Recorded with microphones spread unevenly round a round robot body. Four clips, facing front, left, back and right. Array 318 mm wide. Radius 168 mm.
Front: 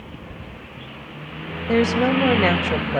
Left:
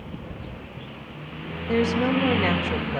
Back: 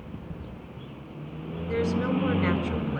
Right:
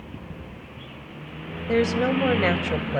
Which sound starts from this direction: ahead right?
A woman speaking, at 1.7 s.